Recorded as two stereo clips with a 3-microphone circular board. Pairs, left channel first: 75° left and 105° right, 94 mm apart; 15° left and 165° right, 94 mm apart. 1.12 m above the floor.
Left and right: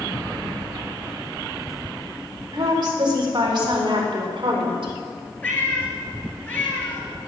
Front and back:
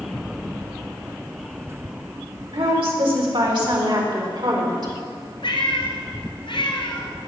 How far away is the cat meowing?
About 2.5 m.